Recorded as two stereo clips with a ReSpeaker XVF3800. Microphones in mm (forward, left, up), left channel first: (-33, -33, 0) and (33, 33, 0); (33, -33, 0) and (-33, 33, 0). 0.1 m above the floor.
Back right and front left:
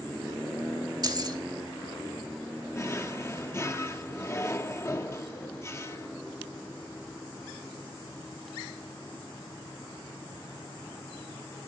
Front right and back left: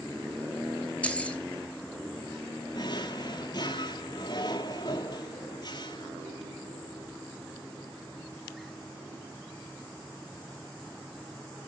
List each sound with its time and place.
1.0 s keys jangling: 25° left, 1.1 m
2.7 s a drawer: 75° right, 0.9 m